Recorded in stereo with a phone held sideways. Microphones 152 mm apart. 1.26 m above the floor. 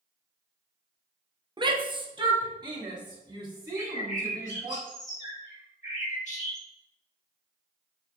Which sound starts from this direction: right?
A shout, at 1.6 s.